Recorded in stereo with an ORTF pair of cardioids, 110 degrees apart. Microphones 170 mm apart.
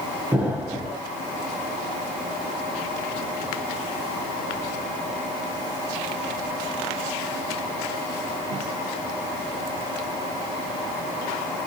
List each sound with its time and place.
0.3 s an explosion: 10° right, 0.6 m